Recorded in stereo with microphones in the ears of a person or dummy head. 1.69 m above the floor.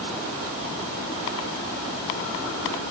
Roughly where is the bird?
I don't hear a bird.